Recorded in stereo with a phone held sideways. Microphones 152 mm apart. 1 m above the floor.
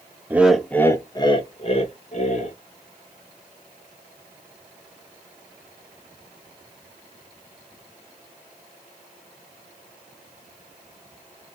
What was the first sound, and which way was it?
Laughter, 15° right (ahead or behind).